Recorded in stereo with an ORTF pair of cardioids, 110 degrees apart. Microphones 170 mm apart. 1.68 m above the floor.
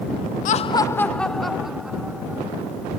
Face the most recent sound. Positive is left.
turn(degrees=-10)